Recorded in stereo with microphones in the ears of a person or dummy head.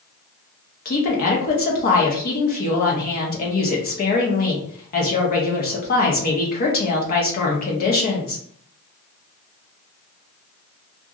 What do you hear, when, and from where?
0.8 s a woman speaking: 50° left (ahead or behind), 0.9 m